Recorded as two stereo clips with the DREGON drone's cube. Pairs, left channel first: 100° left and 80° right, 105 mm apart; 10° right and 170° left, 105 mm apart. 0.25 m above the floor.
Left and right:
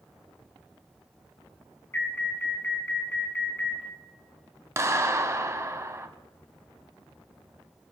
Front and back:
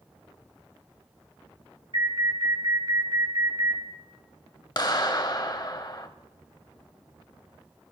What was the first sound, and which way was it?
An alarm, 155° left.